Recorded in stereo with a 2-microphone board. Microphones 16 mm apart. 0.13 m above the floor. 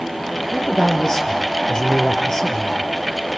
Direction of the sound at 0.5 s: 30° left (ahead or behind).